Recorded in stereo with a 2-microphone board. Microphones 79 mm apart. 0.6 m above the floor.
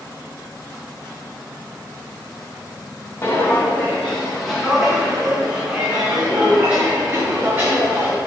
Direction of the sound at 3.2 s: 30° left (ahead or behind).